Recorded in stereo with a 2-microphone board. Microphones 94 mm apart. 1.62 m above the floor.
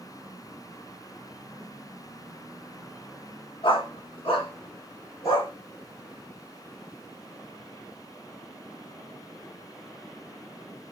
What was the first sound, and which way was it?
A dog barking, 65° left (ahead or behind).